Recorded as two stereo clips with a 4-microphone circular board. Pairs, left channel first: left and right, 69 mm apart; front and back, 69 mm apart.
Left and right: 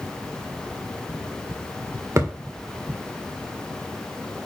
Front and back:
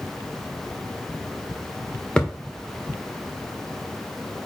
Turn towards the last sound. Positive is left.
turn(degrees=-70)